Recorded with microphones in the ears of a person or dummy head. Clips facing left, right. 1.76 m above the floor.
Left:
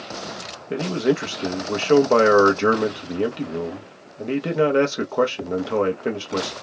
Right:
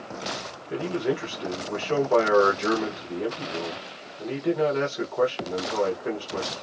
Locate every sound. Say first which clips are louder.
0.7 s a man speaking: left 5 dB; 85° left, 0.9 m